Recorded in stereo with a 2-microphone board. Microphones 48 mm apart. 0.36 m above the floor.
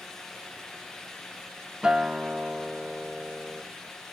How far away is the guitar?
About 0.7 m.